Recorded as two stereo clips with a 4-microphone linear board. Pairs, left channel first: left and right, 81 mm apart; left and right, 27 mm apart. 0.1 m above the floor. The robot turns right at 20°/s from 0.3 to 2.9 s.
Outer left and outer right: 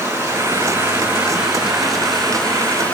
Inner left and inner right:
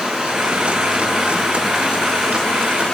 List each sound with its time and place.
0.0 s running water: 35° right, 7.5 m; by 3.0 s 20° left, 7.5 m